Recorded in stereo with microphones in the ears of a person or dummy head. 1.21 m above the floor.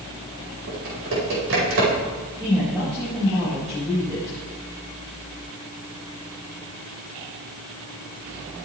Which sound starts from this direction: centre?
A woman speaking, at 2.4 s.